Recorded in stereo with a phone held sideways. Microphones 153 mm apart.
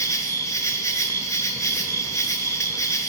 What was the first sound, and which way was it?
An insect, 20° left (ahead or behind).